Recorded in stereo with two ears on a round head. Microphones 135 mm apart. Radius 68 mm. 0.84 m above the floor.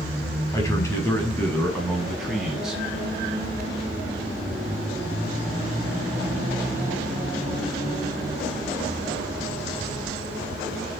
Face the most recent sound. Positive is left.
turn(degrees=-5)  # may be behind; listen again after turning